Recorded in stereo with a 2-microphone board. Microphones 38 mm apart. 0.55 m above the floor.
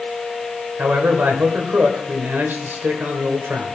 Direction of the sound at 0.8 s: 60° right (ahead or behind).